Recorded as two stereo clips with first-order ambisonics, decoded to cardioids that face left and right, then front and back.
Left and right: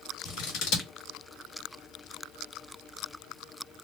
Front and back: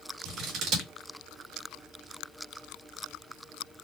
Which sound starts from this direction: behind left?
Scissors, at 0.2 s.